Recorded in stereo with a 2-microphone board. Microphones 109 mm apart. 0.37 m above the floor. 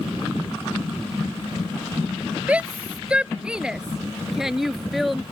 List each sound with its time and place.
2.5 s a shout: 10° right (ahead or behind); by 5.2 s centre (ahead or behind)